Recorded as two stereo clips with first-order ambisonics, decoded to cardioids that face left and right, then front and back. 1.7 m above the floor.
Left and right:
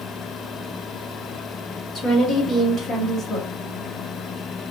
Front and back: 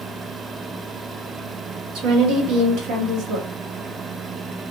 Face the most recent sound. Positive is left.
turn(degrees=155)